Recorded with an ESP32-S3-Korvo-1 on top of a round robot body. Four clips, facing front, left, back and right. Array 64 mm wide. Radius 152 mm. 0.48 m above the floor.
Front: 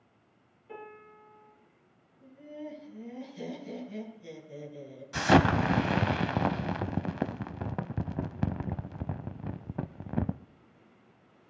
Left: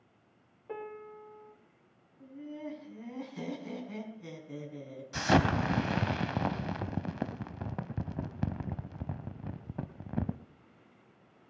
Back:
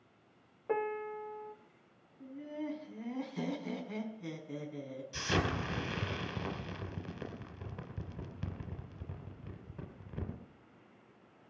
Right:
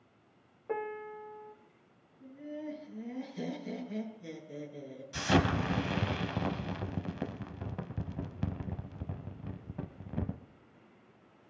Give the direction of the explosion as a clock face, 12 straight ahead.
11 o'clock.